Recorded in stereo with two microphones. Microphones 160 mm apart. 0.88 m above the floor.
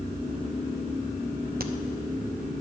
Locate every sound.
1.6 s a crack: 70° right (ahead or behind), 0.7 m